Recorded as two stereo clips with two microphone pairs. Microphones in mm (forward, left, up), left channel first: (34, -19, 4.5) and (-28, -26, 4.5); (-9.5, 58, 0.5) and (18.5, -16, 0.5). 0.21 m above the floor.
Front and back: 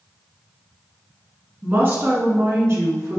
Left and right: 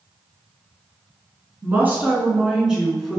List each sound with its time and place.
1.6 s a woman speaking: 125° right, 1.7 m; by 3.2 s 160° right, 1.9 m